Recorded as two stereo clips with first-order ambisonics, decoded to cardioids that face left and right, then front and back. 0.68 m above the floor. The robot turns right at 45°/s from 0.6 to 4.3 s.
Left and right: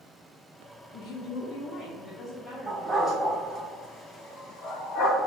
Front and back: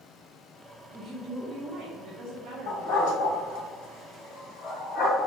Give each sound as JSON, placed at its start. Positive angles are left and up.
{"t": 0.9, "sound": "a woman speaking", "azimuth_deg": 95, "distance_m": 0.7}
{"t": 2.7, "sound": "a dog barking", "azimuth_deg": -20, "distance_m": 1.6}